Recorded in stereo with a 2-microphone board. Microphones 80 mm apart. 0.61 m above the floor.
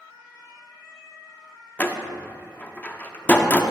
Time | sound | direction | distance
1.8 | a door slam | 25° left (ahead or behind) | 0.6 m